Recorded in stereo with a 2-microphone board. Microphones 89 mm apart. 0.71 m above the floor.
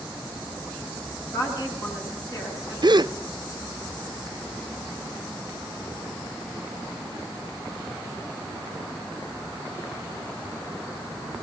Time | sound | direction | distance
1.3 | a woman speaking | 35° left (ahead or behind) | 9 m
2.8 | a gasp | 55° right (ahead or behind) | 0.5 m